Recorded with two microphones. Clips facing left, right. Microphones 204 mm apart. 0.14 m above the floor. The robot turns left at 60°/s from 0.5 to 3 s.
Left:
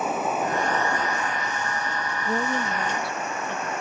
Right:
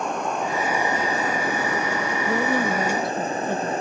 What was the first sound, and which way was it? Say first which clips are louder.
Running water: even; 5° left.